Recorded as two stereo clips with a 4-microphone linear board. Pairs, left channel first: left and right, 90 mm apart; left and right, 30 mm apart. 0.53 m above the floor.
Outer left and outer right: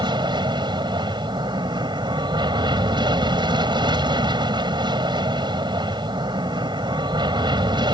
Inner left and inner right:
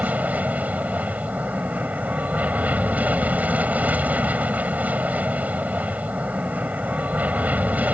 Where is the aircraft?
60° right (ahead or behind).